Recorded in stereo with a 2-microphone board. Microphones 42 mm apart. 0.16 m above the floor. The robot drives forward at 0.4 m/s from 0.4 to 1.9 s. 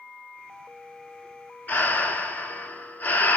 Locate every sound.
1.7 s breathing: 45° left (ahead or behind), 1.4 m; by 3.4 s 50° left (ahead or behind), 1.4 m